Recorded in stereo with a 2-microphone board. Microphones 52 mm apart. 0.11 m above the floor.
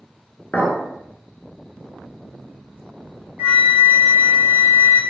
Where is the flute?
35° right (ahead or behind), 0.8 m.